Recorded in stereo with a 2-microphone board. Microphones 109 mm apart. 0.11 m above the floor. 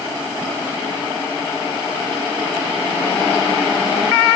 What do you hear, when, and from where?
Only background noise.